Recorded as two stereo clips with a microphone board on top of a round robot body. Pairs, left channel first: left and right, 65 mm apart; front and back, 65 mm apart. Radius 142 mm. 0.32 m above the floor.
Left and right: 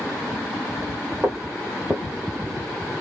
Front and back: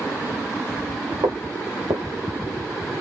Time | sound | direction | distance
1.2 | footsteps | 160° right | 1.4 m